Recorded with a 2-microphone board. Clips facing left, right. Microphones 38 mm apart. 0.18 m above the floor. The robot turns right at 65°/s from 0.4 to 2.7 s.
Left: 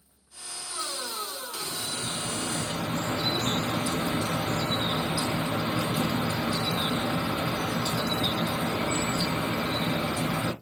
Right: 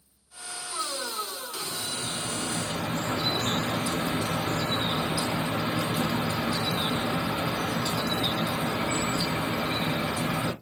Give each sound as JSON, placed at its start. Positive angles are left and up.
{"t": 1.6, "sound": "dripping", "azimuth_deg": 130, "distance_m": 1.9}